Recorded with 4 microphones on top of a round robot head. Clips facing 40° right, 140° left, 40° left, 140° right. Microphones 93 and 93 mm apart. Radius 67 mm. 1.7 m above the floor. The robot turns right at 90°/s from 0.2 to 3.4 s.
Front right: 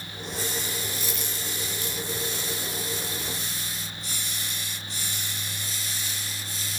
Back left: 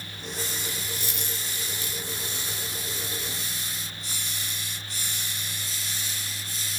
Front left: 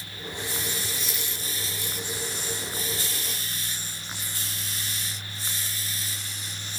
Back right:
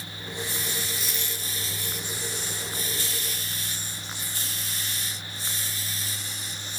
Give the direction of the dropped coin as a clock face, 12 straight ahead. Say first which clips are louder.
Front right 2 dB, even; 2 o'clock.